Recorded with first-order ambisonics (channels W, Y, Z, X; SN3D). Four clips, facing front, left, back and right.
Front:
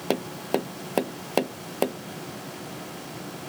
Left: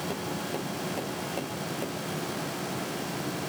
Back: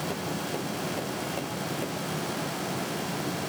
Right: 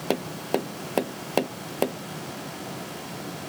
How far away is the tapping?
About 0.5 m.